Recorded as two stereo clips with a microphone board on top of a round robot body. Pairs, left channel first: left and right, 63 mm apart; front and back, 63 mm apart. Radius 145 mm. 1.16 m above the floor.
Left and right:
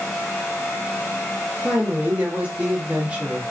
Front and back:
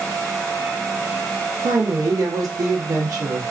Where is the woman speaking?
160° right, 1.0 m.